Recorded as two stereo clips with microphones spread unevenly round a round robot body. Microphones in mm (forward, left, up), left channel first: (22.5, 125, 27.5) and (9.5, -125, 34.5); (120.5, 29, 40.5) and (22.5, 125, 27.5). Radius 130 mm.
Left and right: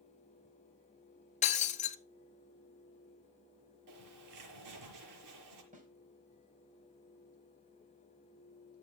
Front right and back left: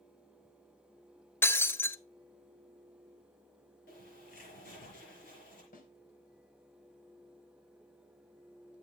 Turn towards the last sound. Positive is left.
turn(degrees=-35)